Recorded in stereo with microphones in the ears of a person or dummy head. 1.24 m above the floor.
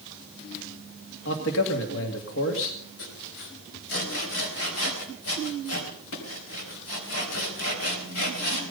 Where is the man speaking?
65° left (ahead or behind), 2 m.